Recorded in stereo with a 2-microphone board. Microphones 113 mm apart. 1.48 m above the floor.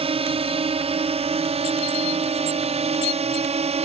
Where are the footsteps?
No footsteps in this recording.